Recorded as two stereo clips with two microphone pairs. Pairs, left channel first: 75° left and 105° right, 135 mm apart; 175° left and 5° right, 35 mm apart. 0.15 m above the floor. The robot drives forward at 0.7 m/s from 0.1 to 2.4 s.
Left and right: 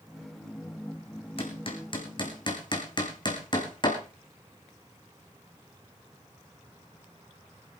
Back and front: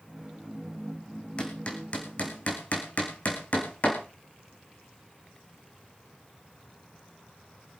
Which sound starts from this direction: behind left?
Hammering, at 1.4 s.